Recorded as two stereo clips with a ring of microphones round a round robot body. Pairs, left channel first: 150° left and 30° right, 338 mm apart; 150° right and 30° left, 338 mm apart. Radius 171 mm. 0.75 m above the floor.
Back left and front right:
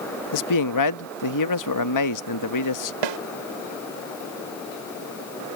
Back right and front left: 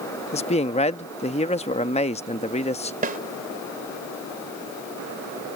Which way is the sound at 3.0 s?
35° right.